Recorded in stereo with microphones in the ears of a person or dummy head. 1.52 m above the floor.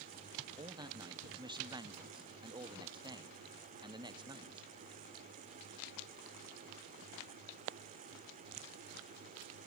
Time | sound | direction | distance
0.6 | a man speaking | 25° right (ahead or behind) | 0.6 m